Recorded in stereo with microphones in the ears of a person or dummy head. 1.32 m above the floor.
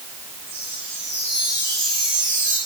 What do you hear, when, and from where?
0.5 s a chime: 10° right (ahead or behind), 9.5 m